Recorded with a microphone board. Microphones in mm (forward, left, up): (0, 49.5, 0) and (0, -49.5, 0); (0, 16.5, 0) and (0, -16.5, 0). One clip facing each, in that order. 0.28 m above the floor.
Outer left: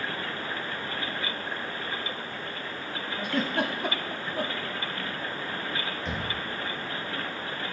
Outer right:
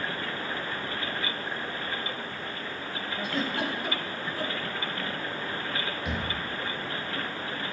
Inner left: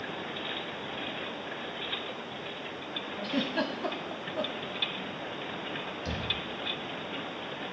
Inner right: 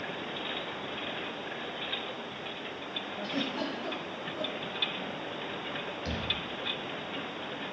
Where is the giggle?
60° left (ahead or behind), 0.8 m.